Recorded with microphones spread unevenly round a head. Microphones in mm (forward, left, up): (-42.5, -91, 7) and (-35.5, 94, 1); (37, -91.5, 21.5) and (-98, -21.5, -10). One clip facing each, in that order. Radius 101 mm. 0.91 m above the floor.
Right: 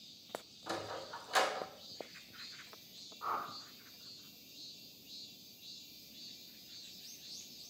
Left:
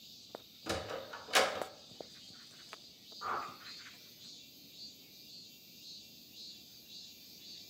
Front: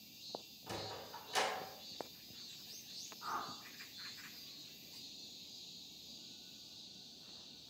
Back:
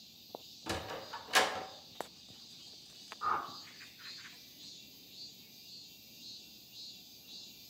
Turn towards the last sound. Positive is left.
turn(degrees=170)